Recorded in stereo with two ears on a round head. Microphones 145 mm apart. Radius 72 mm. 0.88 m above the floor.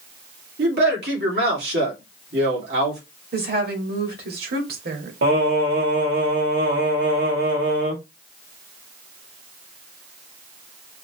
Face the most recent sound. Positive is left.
turn(degrees=-75)  # may be behind; listen again after turning